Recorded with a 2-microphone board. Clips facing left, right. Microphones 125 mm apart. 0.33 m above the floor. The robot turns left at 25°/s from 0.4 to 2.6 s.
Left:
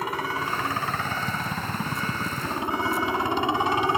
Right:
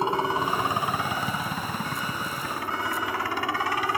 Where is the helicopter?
150° right; by 4.0 s 155° left.